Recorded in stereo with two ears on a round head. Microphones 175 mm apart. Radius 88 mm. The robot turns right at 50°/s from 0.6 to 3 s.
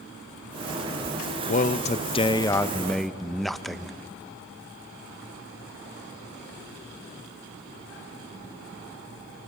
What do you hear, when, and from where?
1.5 s a man speaking: 105° left, 0.6 m; by 4.0 s straight behind, 0.6 m